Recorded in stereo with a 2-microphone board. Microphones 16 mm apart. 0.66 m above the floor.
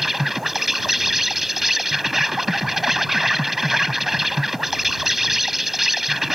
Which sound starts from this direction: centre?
An insect, at 0.0 s.